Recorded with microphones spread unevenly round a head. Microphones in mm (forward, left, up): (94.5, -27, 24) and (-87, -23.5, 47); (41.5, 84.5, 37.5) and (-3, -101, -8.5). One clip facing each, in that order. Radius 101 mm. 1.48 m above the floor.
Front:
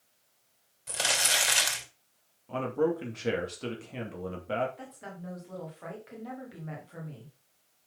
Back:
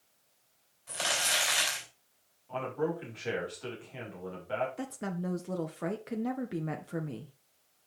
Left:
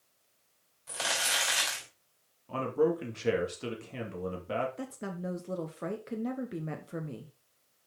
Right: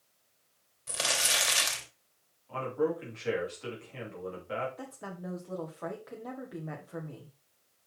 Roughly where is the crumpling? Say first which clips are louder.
Front 2 dB, right 1 dB; ahead right.